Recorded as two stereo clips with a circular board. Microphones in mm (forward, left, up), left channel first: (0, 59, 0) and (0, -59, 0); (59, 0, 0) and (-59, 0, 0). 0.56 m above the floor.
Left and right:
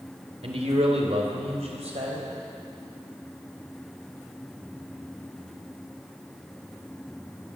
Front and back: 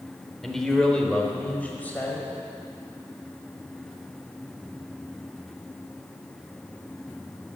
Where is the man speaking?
85° right, 2.5 m; by 2.3 s 75° right, 4 m.